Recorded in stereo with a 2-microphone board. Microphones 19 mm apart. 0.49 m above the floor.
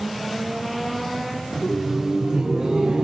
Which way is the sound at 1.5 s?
5° left (ahead or behind).